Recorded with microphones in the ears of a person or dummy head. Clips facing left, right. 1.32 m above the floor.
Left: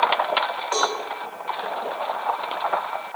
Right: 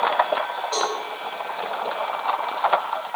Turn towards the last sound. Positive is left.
turn(degrees=35)  # may be behind; listen again after turning